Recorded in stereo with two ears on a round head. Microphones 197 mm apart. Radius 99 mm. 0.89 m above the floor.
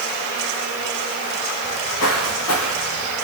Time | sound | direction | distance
1.6 | footsteps | 70° left (ahead or behind) | 5 m